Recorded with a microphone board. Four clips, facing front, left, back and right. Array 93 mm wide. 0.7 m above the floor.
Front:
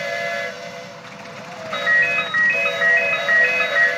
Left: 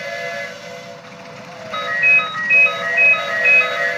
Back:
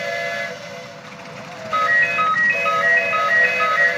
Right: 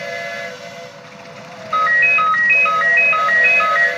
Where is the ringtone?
90° right, 2 m.